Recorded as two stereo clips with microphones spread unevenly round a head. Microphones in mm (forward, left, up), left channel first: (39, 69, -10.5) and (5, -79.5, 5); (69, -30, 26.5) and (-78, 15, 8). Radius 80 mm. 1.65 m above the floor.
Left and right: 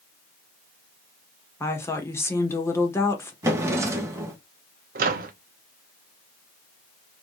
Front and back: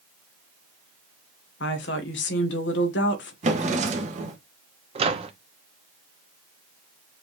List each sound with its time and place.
1.6 s a woman speaking: 5° left, 1.6 m
3.4 s a drawer: 160° right, 1.0 m
5.0 s a microwave: 140° right, 0.8 m